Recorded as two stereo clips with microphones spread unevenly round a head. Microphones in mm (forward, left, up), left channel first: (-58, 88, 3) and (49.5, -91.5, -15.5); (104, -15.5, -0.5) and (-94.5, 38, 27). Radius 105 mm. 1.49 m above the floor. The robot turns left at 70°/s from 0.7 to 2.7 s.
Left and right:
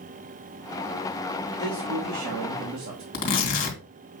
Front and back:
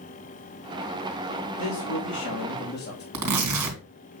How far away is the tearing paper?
About 2.5 m.